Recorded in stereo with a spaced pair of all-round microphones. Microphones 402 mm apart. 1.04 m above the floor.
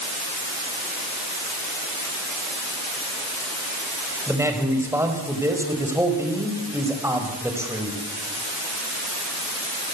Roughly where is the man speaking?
Centre.